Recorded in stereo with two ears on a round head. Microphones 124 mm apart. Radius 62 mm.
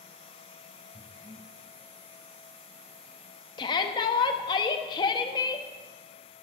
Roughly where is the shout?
Left.